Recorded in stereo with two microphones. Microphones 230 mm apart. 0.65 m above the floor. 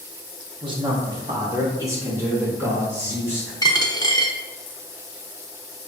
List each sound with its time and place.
0.6 s a man speaking: 20° right (ahead or behind), 0.8 m; by 3.5 s 10° right (ahead or behind), 2.5 m
3.6 s a dropped coin: 20° left (ahead or behind), 0.5 m